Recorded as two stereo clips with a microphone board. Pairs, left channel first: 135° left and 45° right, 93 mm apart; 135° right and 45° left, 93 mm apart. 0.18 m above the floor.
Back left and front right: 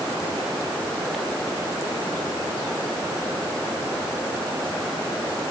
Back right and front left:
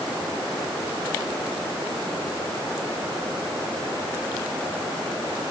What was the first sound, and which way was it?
Only background noise.